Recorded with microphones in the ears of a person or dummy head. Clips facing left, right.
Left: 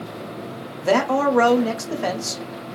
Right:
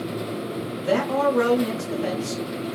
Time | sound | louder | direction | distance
0.8 | a man speaking | left 3 dB | 65° left (ahead or behind) | 1.2 m